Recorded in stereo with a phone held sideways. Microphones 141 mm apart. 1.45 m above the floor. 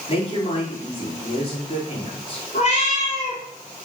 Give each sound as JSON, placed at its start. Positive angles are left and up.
{"t": 0.1, "sound": "a woman speaking", "side_deg": 45, "distance_m": 3.5}
{"t": 2.5, "sound": "a cat meowing", "side_deg": 50, "distance_m": 4.0}